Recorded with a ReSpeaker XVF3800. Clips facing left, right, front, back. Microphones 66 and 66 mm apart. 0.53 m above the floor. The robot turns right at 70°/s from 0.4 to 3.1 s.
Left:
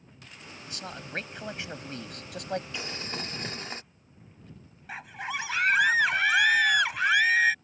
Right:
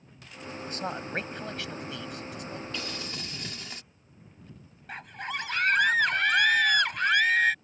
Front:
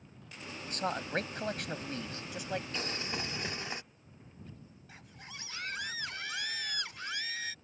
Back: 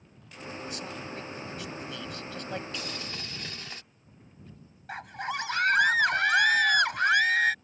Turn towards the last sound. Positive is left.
turn(degrees=175)